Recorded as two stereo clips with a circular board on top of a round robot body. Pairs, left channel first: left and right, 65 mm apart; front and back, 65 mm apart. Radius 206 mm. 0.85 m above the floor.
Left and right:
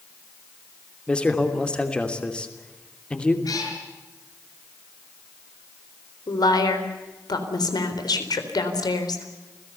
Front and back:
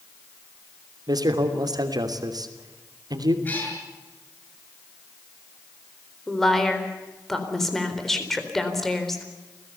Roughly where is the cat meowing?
Ahead left.